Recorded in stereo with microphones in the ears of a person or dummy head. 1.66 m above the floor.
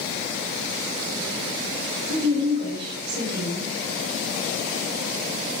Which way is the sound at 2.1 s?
65° right (ahead or behind).